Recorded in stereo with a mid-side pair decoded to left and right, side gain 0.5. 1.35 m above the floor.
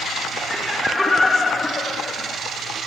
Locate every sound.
0.5 s laughter: 10° right, 1.8 m; by 2.4 s 35° left, 2.5 m